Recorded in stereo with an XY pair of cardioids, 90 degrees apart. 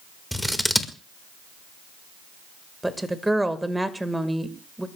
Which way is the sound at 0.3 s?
Straight ahead.